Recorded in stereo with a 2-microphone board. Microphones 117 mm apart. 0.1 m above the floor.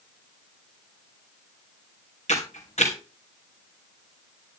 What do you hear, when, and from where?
2.3 s a camera shutter: 70° left (ahead or behind), 2.5 m